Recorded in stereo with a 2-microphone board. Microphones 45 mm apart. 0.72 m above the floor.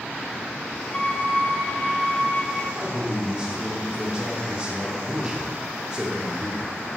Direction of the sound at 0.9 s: 30° left (ahead or behind).